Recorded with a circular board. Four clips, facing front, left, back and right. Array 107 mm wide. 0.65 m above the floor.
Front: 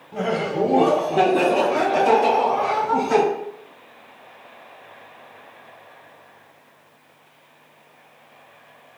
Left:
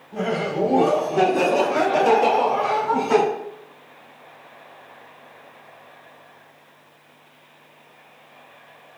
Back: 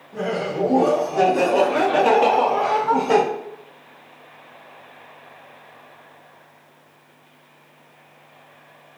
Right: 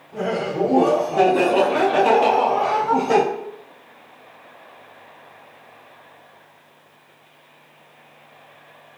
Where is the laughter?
10° left, 1.0 m; by 3.2 s 155° right, 1.2 m.